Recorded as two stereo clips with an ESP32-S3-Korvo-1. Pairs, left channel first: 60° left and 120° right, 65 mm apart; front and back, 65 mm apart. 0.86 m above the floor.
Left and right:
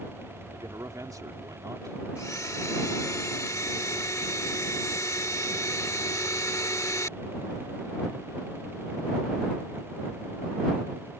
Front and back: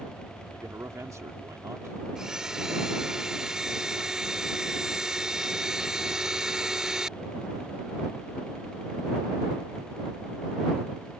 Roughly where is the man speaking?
Behind right.